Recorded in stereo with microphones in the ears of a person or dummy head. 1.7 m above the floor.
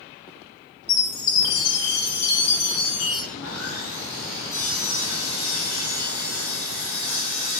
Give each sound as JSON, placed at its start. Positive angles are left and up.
{"t": 0.9, "sound": "a chime", "side_deg": 55, "distance_m": 5.5}
{"t": 3.3, "sound": "sawing", "side_deg": 80, "distance_m": 4.0}